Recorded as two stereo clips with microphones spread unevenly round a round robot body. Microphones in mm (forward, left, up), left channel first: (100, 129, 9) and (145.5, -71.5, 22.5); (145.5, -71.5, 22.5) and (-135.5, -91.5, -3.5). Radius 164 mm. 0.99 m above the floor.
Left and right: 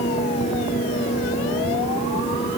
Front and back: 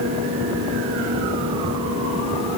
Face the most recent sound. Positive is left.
No sound to turn to.